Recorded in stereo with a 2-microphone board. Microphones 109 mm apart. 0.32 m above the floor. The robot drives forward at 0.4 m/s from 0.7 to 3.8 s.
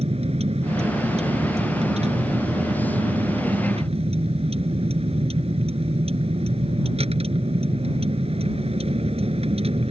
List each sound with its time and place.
0.0 s a vehicle: 80° right; by 9.9 s 70° right (ahead or behind)